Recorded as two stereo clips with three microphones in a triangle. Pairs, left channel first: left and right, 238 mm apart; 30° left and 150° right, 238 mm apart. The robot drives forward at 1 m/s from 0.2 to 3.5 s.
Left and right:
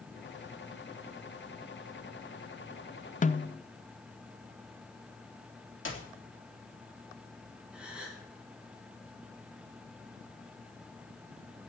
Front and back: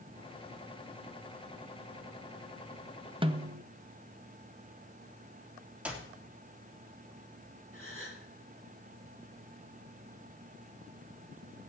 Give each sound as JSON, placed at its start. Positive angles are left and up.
{"t": 3.2, "sound": "a snare drum", "azimuth_deg": 145, "distance_m": 0.5}
{"t": 5.8, "sound": "a clap", "azimuth_deg": 125, "distance_m": 2.5}
{"t": 7.7, "sound": "a gasp", "azimuth_deg": -175, "distance_m": 4.0}